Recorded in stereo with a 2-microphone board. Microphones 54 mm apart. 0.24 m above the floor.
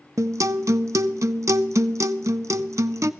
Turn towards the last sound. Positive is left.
turn(degrees=-70)  # may be behind; listen again after turning